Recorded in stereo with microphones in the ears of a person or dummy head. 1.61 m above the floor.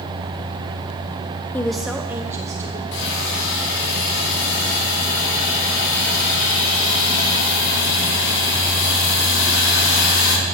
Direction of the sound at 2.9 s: 70° left (ahead or behind).